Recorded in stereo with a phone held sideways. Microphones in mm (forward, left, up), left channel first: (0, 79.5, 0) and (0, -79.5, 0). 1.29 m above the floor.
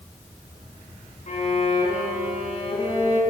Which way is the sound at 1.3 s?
45° left (ahead or behind).